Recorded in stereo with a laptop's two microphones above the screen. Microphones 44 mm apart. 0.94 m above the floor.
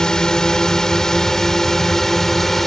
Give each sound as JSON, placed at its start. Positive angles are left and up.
{"t": 0.0, "sound": "a drone", "side_deg": 15}